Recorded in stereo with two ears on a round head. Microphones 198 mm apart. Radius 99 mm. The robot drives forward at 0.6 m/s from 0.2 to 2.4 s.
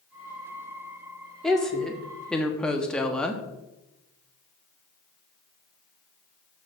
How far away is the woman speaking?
About 1.8 m.